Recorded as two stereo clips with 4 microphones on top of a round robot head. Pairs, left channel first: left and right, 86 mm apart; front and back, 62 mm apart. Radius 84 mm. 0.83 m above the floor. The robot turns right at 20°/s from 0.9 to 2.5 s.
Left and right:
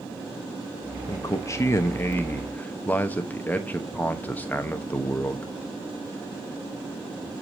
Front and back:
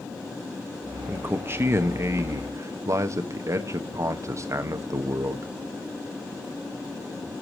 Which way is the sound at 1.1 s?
130° left.